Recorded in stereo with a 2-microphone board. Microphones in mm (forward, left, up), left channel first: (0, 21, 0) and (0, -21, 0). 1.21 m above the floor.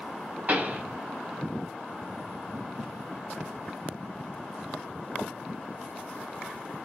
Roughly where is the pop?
Right.